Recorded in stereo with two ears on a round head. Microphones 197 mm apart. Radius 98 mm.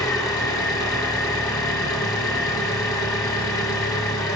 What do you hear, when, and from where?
0.0 s an engine running: 15° left (ahead or behind), 0.8 m